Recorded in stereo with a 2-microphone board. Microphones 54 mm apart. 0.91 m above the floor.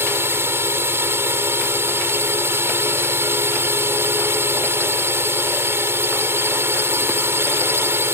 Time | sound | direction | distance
0.0 | a drone | 45° right (ahead or behind) | ?